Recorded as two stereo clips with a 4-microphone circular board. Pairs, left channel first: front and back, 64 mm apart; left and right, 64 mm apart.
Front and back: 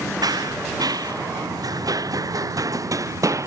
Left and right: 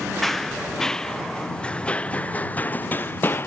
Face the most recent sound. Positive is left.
turn(degrees=145)